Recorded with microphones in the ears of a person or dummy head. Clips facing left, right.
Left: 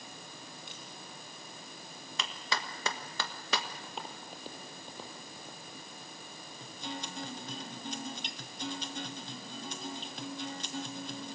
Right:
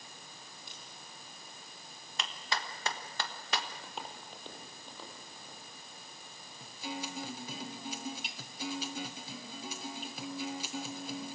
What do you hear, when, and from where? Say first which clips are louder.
0.7 s a crack: left 4 dB; 35° right (ahead or behind), 4.5 m
2.2 s a clap: left 1 dB; 60° left (ahead or behind), 1.4 m
3.8 s footsteps: left 1 dB; centre (ahead or behind), 3.5 m; by 5.6 s 20° left (ahead or behind), 5.5 m
6.6 s a guitar: right 1 dB; 5° right (ahead or behind), 1.0 m